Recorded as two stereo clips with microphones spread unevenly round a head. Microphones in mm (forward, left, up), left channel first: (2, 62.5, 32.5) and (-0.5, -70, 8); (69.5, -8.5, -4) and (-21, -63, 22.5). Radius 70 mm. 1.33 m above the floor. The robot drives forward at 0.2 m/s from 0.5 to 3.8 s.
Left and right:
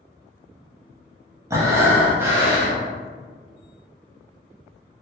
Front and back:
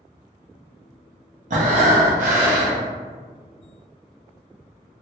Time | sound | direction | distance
1.5 | breathing | 165° right | 0.6 m